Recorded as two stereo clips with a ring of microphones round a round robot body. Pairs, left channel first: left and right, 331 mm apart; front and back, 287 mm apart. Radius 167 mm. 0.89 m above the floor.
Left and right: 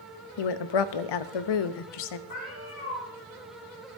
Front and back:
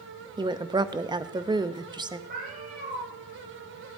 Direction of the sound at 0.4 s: 105° left.